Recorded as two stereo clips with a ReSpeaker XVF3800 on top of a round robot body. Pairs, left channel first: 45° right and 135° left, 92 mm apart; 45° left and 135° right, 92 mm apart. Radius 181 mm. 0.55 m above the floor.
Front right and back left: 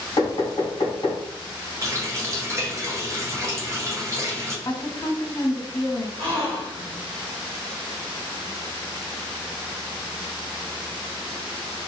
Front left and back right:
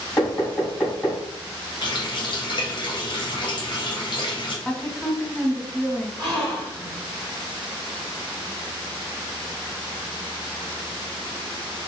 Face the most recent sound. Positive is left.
turn(degrees=115)